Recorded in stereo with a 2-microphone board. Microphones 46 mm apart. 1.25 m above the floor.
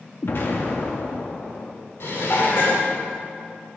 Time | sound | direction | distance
0.2 | an explosion | 55° left (ahead or behind) | 1.3 m
2.0 | dishes clattering | 60° left (ahead or behind) | 2.5 m